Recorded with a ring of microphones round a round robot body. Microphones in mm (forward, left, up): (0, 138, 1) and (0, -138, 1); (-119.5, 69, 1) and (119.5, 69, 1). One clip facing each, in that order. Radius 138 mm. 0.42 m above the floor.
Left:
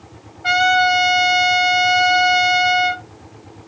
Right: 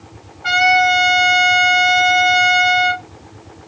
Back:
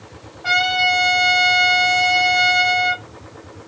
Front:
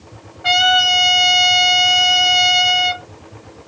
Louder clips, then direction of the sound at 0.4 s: Right 1 dB, front 4 dB; 5° left.